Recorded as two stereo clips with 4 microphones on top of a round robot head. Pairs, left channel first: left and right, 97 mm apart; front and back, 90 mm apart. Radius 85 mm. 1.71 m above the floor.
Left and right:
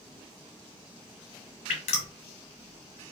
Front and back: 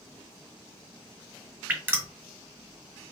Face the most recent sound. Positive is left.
turn(degrees=110)